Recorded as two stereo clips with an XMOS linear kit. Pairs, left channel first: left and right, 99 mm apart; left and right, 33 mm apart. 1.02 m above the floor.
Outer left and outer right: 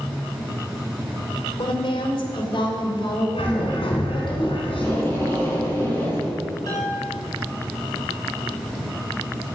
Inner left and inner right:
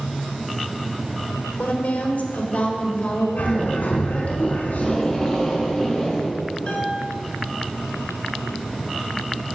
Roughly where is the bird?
Left.